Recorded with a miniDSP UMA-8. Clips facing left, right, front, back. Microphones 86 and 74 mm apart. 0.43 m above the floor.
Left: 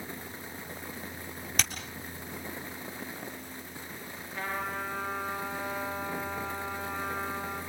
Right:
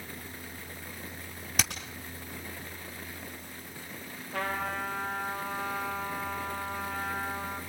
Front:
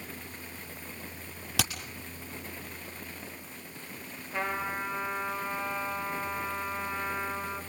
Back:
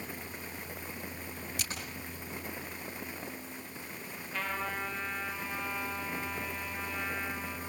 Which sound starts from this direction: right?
A trumpet, at 4.3 s.